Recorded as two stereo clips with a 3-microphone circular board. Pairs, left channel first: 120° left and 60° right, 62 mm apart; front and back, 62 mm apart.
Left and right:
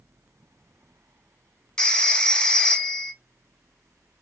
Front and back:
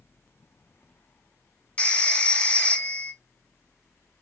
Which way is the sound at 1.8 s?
50° left.